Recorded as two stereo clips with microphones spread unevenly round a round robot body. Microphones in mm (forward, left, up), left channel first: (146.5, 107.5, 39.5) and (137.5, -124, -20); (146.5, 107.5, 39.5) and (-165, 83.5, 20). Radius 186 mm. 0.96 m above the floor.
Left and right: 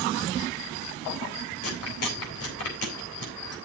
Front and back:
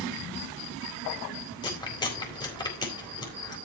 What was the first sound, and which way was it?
Chewing, 80° left.